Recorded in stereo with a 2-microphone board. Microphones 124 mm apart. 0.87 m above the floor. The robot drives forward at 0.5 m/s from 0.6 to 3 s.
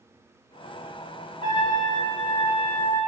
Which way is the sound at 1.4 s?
40° left (ahead or behind).